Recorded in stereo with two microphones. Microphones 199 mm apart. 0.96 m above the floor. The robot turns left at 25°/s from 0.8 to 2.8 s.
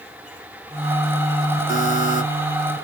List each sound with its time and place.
1.7 s a buzzer: 70° left (ahead or behind), 4.5 m; by 2.2 s 60° left (ahead or behind), 4.5 m